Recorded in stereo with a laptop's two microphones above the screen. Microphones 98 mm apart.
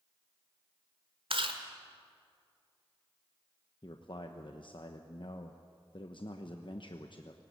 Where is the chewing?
65° right (ahead or behind), 1.5 m.